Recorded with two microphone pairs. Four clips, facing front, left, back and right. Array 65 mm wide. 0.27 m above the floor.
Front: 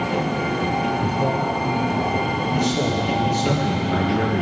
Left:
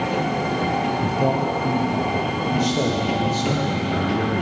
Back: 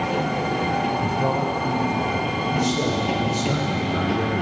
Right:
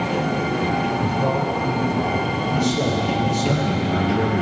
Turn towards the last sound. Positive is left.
turn(degrees=10)